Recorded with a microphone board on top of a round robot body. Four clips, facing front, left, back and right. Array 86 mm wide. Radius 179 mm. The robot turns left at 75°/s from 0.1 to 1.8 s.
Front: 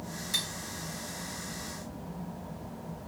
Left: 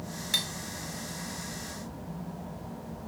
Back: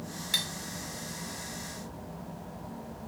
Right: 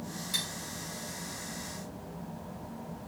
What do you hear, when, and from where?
0.3 s cutlery clinking: 130° left, 1.1 m; by 0.5 s 120° left, 1.1 m